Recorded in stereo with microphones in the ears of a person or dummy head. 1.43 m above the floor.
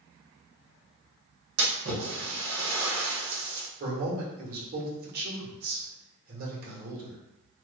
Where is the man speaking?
50° right (ahead or behind), 1.5 m.